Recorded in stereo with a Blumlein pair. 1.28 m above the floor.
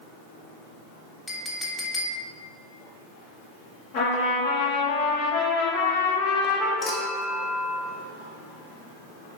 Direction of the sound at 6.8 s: 15° left.